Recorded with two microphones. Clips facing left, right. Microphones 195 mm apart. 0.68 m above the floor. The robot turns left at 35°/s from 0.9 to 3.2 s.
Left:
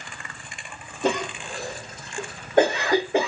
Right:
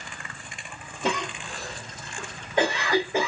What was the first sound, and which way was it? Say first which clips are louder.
A cough: left 4 dB; 55° left (ahead or behind).